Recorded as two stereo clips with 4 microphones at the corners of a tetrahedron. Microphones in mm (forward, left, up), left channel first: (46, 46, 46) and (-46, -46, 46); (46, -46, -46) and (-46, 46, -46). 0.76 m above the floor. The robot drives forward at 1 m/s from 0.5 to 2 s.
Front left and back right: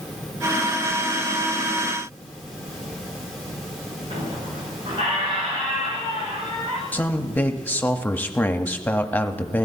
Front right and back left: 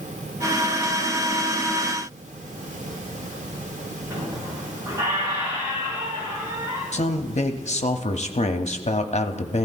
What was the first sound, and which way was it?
A squeak, 165° right.